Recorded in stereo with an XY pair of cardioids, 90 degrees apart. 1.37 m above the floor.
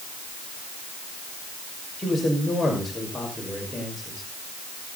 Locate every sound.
2.0 s a man speaking: 25° left, 6 m